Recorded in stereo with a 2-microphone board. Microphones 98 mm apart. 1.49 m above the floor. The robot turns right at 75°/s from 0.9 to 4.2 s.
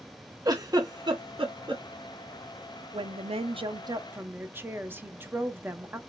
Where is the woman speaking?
120° right, 0.8 m; by 6.0 s 25° right, 0.8 m.